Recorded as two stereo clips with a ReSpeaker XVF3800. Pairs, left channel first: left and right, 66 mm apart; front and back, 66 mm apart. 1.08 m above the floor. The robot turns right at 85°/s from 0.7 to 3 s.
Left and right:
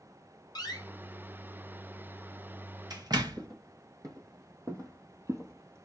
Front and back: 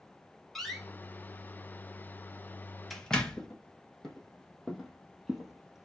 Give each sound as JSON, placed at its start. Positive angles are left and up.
{"t": 0.6, "sound": "a door slam", "azimuth_deg": 85, "distance_m": 1.2}
{"t": 3.4, "sound": "footsteps", "azimuth_deg": -80, "distance_m": 3.0}